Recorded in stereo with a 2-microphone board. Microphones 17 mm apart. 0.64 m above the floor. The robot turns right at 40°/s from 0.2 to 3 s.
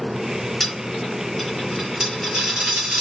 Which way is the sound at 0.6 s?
25° left (ahead or behind).